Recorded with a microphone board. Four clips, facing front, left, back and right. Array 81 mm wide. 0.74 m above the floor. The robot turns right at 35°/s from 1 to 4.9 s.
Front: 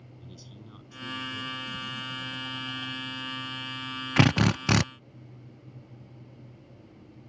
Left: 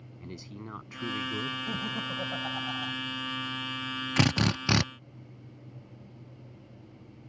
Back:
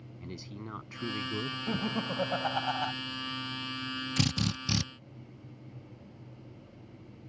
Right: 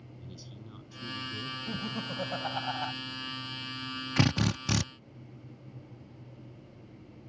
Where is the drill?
5° left; by 4.8 s 30° left.